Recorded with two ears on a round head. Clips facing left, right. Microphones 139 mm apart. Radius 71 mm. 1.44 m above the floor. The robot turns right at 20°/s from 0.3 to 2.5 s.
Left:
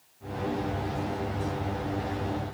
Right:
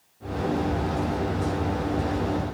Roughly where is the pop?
I don't hear a pop.